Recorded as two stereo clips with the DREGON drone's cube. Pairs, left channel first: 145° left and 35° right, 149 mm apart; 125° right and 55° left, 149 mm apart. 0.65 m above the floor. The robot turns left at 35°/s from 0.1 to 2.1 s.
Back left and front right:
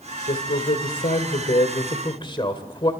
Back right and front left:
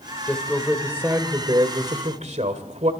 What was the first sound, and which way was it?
A man speaking, 155° left.